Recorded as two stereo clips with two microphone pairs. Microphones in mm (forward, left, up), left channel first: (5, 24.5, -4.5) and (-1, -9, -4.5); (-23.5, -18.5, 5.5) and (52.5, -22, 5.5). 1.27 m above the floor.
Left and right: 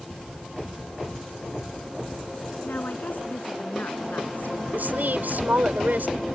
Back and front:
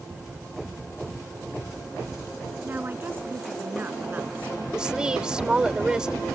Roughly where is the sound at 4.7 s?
Right.